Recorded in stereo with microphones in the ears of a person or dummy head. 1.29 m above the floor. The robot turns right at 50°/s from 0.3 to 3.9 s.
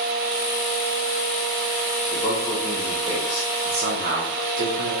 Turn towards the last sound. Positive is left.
turn(degrees=-125)